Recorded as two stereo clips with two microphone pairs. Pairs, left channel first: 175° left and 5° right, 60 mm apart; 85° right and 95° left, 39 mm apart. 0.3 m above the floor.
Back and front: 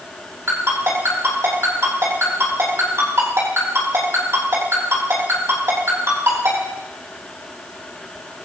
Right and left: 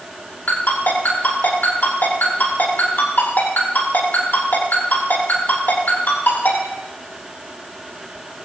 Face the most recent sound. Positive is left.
turn(degrees=-45)